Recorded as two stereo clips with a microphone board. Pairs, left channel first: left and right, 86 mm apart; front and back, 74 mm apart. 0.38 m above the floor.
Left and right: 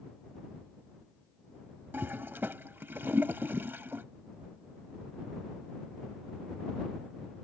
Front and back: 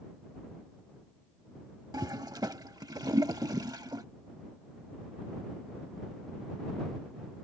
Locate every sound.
1.9 s a toilet flushing: 155° right